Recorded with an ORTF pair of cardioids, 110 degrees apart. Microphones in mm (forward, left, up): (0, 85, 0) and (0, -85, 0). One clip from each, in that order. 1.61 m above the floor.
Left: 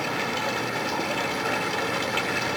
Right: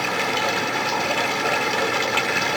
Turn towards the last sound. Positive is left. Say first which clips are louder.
# right 5 dB
turn(degrees=-35)